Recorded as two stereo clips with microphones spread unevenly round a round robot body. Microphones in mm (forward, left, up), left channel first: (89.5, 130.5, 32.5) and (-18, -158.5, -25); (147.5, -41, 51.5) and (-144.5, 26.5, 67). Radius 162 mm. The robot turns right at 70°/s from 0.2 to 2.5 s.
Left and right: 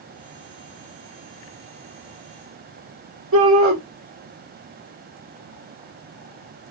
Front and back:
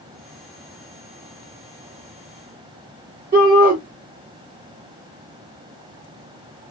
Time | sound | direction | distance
3.3 | a shout | 140° right | 1.9 m